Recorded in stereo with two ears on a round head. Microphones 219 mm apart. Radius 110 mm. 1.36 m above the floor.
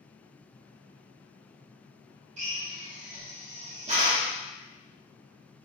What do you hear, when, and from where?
2.4 s a drill: 30° right (ahead or behind), 0.6 m